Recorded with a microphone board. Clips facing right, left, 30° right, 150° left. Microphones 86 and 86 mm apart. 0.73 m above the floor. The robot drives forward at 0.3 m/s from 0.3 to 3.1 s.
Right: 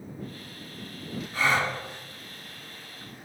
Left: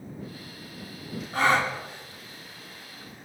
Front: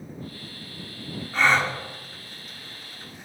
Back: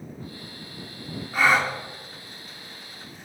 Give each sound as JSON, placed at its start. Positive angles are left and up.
{"t": 1.3, "sound": "a gasp", "azimuth_deg": 70, "distance_m": 1.8}